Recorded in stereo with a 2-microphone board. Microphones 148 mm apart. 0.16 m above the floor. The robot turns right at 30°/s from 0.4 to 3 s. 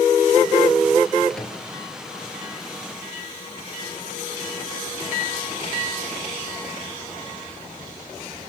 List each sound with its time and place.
1.3 s a microwave: centre (ahead or behind), 3 m; by 1.6 s 10° left (ahead or behind), 3 m